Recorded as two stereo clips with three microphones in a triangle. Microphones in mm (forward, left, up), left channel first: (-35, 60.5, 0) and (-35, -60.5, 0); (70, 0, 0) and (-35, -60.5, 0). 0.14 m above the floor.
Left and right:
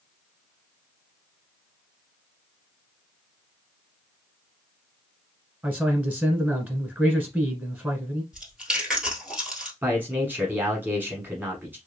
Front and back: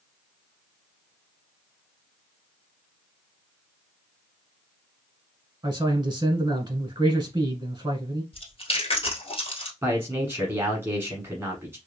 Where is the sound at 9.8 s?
130° right, 1.1 m.